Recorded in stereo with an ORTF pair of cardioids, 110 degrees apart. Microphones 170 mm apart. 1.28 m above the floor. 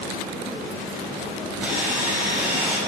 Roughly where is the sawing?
Ahead.